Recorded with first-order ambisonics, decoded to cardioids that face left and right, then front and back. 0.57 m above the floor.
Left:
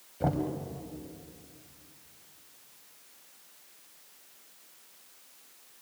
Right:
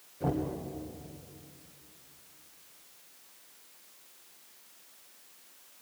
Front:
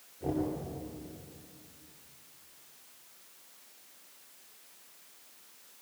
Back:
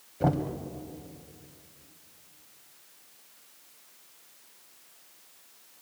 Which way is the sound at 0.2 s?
155° left.